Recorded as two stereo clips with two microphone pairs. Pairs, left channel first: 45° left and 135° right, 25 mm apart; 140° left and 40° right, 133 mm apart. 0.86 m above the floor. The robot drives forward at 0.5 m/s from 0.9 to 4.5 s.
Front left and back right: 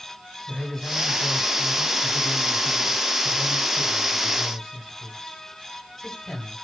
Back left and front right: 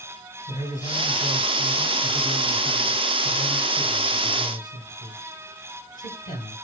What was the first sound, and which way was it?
A man speaking, 120° left.